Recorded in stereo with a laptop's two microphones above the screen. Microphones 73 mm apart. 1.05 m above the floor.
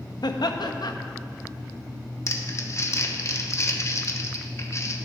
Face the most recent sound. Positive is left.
turn(degrees=40)  # may be behind; listen again after turning